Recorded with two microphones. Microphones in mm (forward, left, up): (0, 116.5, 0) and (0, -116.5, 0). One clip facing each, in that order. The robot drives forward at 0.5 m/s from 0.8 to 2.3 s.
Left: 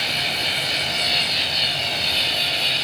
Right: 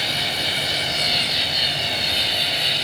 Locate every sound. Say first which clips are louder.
0.0 s an insect: right 1 dB; 10° right (ahead or behind), 3 m; by 2.9 s 15° right (ahead or behind), 2.5 m